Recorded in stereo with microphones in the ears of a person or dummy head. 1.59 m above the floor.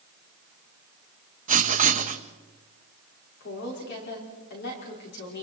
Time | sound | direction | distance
1.5 | writing | 45° right (ahead or behind) | 1.2 m
3.4 | a woman speaking | 55° left (ahead or behind) | 5.5 m